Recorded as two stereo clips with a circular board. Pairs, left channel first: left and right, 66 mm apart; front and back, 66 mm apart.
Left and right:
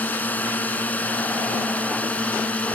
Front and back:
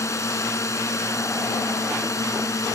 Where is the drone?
30° left; by 2.8 s 25° left.